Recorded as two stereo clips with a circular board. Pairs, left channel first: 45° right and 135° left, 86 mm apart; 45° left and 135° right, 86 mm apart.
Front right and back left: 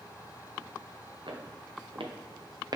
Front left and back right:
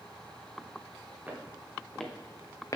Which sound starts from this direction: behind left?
Footsteps, at 1.3 s.